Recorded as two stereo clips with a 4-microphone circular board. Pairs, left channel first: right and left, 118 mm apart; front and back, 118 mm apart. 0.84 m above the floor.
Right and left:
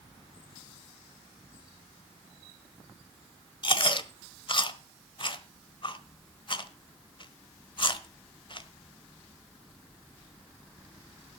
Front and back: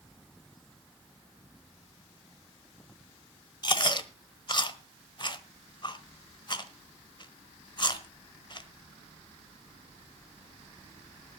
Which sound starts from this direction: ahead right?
Chewing, at 3.6 s.